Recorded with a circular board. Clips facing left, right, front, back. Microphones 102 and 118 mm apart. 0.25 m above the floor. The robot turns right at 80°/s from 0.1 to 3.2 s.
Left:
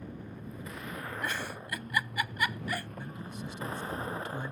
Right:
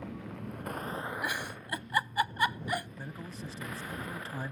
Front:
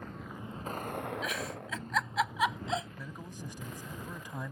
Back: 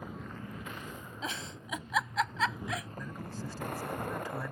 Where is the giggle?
160° right; by 2.9 s 25° right.